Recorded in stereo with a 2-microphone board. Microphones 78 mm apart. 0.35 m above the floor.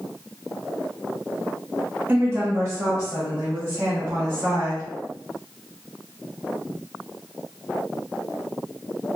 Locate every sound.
2.1 s a woman speaking: 30° right (ahead or behind), 1.0 m; by 4.8 s 40° right (ahead or behind), 3 m